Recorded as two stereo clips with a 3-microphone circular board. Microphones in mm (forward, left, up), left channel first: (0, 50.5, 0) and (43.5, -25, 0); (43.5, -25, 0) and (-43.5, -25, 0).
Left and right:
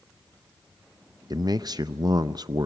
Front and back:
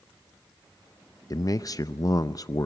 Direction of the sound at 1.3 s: 35° right.